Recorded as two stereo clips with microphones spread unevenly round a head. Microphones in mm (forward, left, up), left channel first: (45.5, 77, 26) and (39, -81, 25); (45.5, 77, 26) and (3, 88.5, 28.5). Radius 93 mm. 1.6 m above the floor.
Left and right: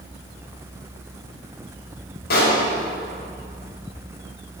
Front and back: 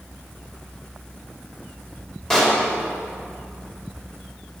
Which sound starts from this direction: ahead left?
A pop, at 2.3 s.